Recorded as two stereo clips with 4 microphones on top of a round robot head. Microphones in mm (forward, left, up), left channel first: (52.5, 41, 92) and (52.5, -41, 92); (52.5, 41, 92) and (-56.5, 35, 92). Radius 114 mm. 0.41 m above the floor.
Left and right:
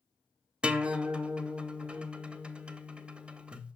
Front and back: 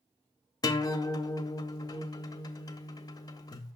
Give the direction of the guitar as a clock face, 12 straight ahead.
1 o'clock.